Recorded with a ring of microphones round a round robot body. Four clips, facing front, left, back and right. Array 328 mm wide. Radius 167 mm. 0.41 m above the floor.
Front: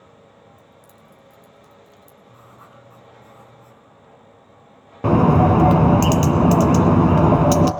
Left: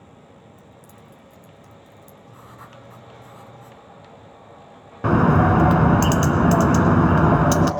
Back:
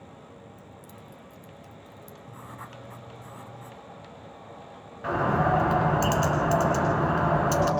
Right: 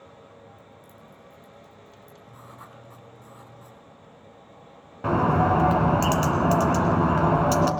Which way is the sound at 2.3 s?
170° left.